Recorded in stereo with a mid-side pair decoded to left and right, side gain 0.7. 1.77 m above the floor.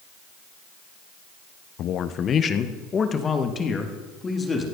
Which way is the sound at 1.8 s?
50° left.